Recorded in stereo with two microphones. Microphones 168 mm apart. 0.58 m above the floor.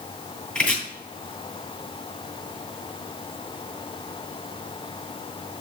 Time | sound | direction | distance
0.6 | chopping | 5° left (ahead or behind) | 2.5 m